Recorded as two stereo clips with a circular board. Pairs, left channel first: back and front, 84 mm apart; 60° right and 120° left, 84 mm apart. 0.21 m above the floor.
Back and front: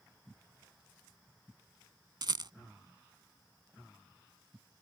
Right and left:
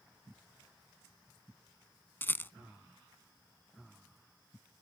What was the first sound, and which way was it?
A rattle, straight ahead.